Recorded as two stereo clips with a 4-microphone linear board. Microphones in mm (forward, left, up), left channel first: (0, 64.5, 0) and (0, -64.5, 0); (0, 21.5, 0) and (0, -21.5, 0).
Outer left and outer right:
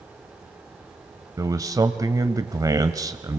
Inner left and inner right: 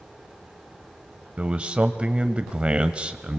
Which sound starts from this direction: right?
A man speaking, at 1.4 s.